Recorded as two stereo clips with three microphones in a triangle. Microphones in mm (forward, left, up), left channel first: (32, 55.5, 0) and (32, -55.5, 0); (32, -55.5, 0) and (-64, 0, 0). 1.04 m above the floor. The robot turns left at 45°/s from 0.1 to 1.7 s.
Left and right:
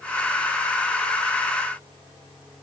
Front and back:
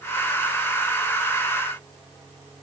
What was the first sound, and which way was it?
Only background noise.